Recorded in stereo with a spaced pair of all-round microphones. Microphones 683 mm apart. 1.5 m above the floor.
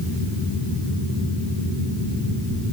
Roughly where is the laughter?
No laughter in this recording.